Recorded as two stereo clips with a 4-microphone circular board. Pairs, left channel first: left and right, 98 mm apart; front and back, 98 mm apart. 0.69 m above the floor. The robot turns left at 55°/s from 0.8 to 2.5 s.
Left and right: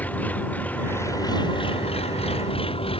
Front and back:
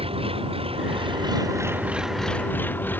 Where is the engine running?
165° left; by 3.0 s 70° left.